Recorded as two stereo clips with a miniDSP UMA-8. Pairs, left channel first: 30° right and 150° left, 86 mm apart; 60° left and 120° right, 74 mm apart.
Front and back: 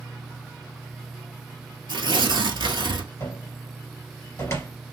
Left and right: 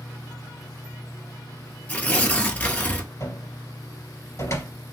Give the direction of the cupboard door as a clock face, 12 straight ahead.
11 o'clock.